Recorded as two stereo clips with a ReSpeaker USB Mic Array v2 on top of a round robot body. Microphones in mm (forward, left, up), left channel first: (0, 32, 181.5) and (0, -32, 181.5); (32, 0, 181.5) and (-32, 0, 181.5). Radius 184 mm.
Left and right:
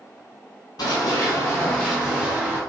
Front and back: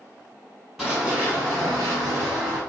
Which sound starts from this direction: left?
Running footsteps, at 0.8 s.